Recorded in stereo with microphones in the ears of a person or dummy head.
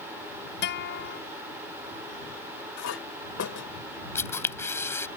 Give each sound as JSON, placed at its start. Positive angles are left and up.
{"t": 0.6, "sound": "a guitar", "side_deg": 70}
{"t": 2.8, "sound": "a clink", "side_deg": 65}
{"t": 4.2, "sound": "a camera shutter", "side_deg": 15}